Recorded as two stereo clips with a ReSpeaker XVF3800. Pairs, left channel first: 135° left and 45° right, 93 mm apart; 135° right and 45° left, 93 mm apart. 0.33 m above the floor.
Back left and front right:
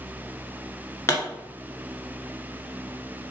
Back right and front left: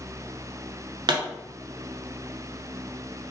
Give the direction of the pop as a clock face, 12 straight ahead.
9 o'clock.